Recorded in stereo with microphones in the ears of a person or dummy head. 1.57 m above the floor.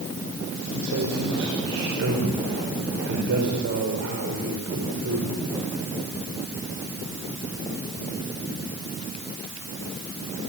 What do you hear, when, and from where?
0.7 s a man speaking: 75° right (ahead or behind), 6 m